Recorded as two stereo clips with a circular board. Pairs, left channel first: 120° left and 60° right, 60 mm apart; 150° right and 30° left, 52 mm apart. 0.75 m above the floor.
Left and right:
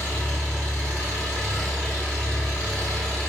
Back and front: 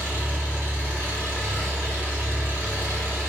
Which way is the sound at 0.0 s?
50° left.